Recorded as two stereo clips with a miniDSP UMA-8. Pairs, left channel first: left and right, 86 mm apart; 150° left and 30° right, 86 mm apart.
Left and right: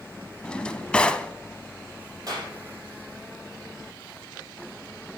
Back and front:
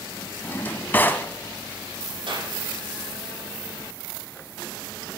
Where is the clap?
50° right, 5 m.